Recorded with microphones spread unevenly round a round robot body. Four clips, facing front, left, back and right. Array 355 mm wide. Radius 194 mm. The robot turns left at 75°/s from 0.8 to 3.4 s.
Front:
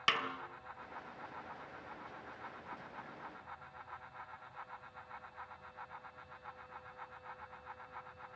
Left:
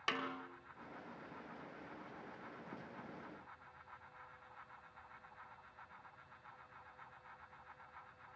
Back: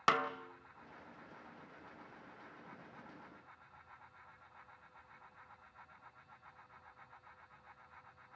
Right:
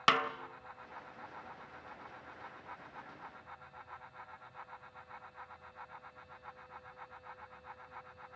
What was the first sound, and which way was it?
A snare drum, 110° right.